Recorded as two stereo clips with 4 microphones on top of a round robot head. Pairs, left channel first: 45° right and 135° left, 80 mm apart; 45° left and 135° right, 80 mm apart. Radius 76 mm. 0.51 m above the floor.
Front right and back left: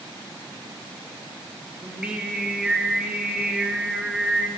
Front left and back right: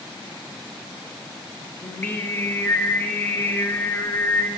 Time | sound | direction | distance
1.8 | singing | 75° left | 1.4 m